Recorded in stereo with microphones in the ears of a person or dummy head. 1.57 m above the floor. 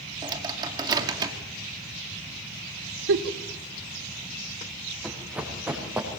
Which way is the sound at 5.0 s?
5° right (ahead or behind).